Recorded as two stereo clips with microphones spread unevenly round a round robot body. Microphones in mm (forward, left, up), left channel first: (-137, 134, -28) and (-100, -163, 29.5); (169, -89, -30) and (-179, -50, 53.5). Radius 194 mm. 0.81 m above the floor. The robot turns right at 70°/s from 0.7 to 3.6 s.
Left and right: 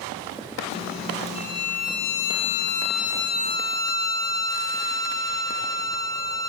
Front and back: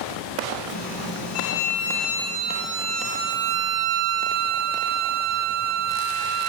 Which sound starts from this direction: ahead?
A violin, at 1.4 s.